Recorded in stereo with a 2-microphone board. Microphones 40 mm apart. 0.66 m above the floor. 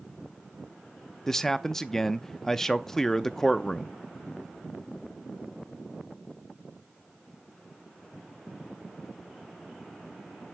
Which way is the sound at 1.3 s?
10° left (ahead or behind).